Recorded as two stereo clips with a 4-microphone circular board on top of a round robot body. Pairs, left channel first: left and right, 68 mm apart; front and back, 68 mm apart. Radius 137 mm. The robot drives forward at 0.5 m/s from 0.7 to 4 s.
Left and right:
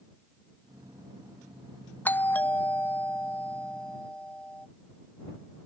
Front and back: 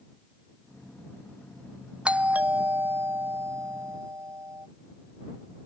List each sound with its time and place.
2.0 s a doorbell: 120° left; by 4.7 s 155° left